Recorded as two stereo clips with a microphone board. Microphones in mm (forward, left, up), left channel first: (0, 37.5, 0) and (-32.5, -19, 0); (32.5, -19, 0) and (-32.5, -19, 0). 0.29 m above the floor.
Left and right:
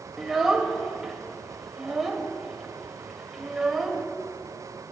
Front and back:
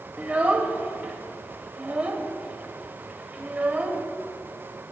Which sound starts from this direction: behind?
A child speaking, at 0.2 s.